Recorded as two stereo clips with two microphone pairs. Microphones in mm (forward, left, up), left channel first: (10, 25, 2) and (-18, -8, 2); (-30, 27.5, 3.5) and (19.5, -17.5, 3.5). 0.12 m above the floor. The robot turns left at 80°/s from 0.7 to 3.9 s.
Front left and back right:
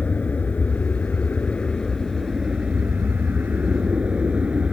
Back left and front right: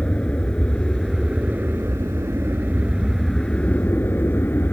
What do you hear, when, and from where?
0.0 s an aircraft: 75° left; by 4.7 s 175° left